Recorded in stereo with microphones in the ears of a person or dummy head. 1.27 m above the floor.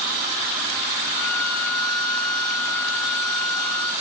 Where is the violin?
50° left (ahead or behind), 1.7 m.